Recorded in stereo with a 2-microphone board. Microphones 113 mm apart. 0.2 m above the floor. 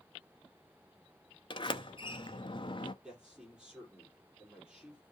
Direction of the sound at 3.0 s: 10° right (ahead or behind).